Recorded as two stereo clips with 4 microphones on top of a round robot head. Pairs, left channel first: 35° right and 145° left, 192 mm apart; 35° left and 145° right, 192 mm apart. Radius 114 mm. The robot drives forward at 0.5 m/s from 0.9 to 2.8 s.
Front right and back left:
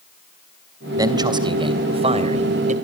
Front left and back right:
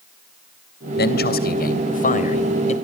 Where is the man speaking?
70° left, 3 m; by 2.7 s 90° left, 2.5 m.